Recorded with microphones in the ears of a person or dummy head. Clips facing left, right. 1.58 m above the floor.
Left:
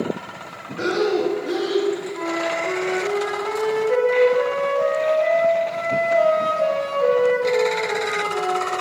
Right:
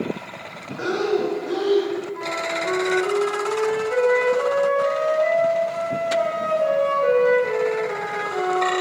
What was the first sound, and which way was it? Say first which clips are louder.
Breathing: left 2 dB; 35° left (ahead or behind).